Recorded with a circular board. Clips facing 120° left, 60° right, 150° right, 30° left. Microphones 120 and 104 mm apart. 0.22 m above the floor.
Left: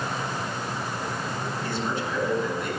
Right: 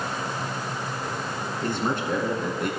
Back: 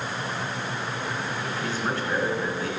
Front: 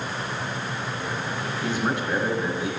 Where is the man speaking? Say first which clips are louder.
Right 5 dB, front 4 dB; 40° right, 2.5 m.